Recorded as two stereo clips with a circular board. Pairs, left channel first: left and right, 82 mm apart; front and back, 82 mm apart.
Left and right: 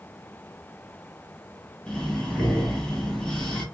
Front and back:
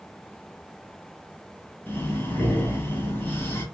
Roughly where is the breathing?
Ahead.